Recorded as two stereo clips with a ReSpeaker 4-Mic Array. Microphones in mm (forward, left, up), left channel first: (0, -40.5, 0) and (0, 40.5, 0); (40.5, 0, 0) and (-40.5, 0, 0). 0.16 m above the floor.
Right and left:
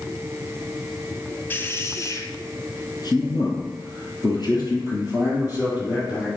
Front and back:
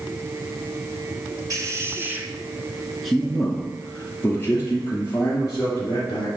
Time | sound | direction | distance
1.5 | a man speaking | 150° right | 1.5 m